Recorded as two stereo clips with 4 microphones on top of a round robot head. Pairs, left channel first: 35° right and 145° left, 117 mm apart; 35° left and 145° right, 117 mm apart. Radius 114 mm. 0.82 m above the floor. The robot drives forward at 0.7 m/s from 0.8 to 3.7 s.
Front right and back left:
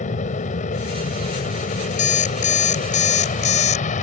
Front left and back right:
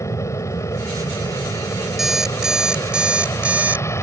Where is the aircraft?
30° right.